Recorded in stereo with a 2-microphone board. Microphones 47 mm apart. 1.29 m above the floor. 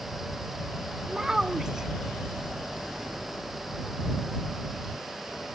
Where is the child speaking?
15° right (ahead or behind).